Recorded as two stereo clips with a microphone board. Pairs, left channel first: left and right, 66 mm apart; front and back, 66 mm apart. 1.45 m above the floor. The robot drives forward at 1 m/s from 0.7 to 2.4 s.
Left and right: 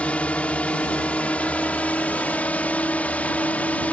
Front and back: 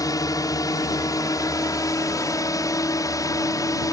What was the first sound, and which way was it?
A drone, 15° left.